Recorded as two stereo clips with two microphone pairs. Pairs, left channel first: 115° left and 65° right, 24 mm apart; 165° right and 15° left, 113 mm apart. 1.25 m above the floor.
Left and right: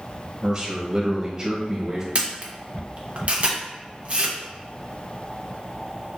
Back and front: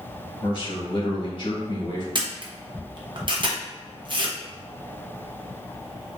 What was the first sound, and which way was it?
A man speaking, 120° right.